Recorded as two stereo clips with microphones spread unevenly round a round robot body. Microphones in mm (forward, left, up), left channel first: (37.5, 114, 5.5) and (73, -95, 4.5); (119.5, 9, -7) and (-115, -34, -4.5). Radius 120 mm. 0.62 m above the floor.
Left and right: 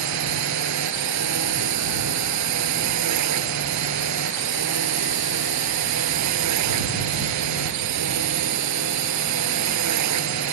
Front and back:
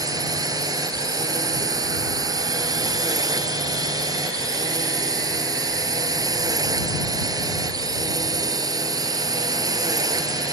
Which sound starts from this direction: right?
A drone, at 0.0 s.